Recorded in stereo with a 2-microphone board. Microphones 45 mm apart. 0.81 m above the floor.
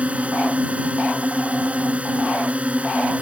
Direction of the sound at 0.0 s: 30° right (ahead or behind).